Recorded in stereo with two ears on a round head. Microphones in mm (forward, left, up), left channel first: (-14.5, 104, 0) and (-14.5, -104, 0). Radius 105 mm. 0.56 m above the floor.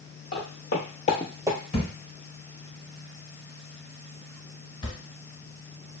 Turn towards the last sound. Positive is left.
turn(degrees=20)  # may be behind; listen again after turning